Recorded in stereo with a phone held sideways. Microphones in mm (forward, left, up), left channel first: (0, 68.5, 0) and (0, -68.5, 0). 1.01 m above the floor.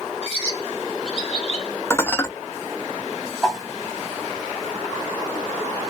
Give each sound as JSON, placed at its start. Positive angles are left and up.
{"t": 0.2, "sound": "a bird", "side_deg": -50, "distance_m": 1.7}
{"t": 1.9, "sound": "dishes clattering", "side_deg": 20, "distance_m": 0.5}
{"t": 3.4, "sound": "a whoosh", "side_deg": 0, "distance_m": 1.6}